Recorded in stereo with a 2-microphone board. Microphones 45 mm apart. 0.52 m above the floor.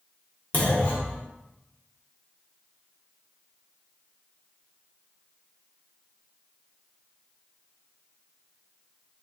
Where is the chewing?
I don't hear chewing.